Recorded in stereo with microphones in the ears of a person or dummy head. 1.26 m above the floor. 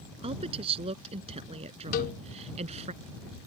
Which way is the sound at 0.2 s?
30° right (ahead or behind).